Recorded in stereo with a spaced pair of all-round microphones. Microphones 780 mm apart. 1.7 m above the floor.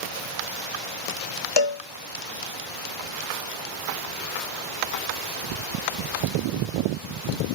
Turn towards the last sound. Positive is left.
turn(degrees=35)  # may be behind; listen again after turning